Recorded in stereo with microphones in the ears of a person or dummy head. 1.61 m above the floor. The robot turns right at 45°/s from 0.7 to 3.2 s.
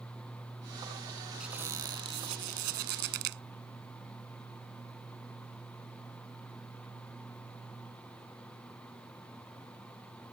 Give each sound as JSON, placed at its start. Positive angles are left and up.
{"t": 1.4, "sound": "a squeak", "azimuth_deg": -175}